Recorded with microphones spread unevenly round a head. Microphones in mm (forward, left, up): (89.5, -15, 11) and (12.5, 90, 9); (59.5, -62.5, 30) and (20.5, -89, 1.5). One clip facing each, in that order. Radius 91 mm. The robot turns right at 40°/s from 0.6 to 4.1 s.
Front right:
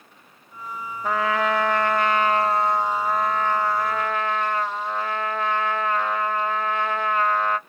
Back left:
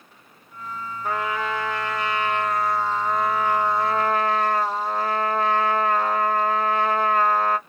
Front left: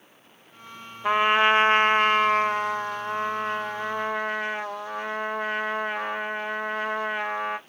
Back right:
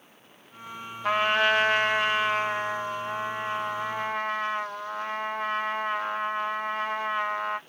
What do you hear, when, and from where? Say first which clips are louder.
1.0 s a trumpet: front right 4 dB, front left 3 dB; 50° right, 1.0 m; by 7.6 s 70° left, 1.0 m